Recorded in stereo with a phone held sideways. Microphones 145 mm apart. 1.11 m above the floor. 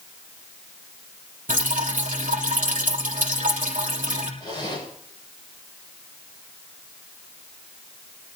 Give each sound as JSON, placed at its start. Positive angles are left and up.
{"t": 1.5, "sound": "dripping", "side_deg": -60, "distance_m": 3.5}
{"t": 4.4, "sound": "a zipper", "side_deg": 30, "distance_m": 6.5}